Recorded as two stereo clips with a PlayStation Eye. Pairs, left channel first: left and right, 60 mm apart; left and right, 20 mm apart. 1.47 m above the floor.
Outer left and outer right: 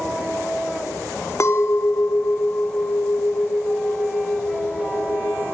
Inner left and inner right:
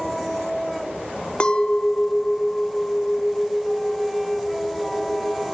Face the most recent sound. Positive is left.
turn(degrees=55)  # may be behind; listen again after turning